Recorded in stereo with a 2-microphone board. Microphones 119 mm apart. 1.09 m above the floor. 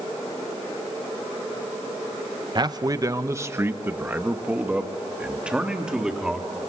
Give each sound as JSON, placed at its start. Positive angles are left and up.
{"t": 2.5, "sound": "a man speaking", "side_deg": -40, "distance_m": 1.0}